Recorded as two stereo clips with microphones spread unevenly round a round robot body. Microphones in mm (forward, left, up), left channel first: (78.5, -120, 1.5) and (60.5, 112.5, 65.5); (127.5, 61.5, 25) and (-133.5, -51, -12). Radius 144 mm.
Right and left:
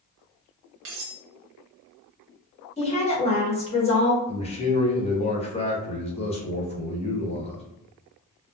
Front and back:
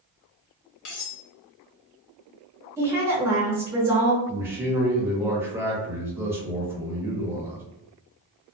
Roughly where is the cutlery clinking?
Ahead left.